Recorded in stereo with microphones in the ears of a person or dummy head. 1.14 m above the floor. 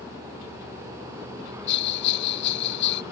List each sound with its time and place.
1.7 s a bell: 60° left (ahead or behind), 0.7 m